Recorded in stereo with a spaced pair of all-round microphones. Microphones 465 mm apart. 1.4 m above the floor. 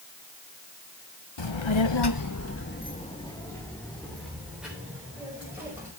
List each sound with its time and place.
1.4 s a child speaking: 65° left (ahead or behind), 1.2 m; by 5.9 s 5° right (ahead or behind), 6 m